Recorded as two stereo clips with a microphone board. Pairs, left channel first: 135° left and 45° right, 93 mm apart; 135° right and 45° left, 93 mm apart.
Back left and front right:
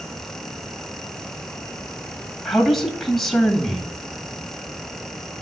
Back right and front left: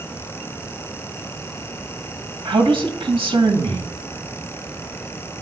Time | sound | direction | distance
2.5 | a man speaking | 50° left | 2 m